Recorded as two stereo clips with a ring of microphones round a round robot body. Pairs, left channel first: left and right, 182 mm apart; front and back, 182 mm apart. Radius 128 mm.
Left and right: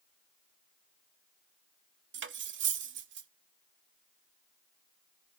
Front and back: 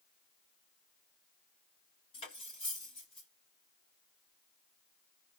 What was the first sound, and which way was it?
Cutlery clinking, 70° right.